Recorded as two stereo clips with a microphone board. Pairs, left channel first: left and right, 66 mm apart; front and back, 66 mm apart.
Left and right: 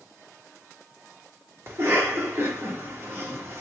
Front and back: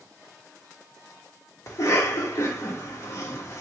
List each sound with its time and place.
1.7 s a cough: 40° right, 1.3 m